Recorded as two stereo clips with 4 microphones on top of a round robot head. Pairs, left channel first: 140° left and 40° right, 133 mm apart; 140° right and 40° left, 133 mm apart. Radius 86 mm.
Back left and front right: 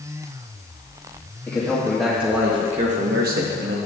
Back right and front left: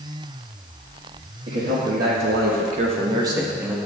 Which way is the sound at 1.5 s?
65° left.